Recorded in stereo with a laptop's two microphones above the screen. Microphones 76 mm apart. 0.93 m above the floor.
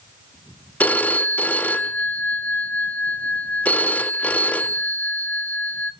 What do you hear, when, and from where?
0.8 s a phone ringing: 20° left (ahead or behind), 0.8 m